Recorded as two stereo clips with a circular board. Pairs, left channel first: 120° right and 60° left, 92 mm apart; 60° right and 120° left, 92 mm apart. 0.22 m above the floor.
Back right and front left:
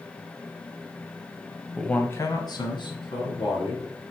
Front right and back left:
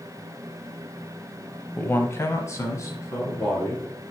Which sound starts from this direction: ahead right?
A man speaking, at 1.8 s.